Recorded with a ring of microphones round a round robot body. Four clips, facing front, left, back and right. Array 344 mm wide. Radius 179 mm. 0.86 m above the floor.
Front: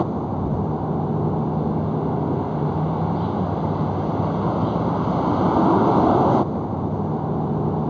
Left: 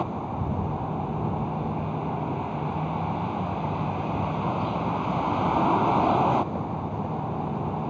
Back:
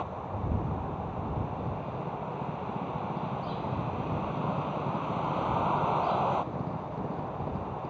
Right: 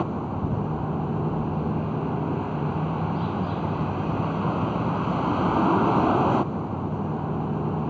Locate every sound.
0.0 s a vehicle: 15° right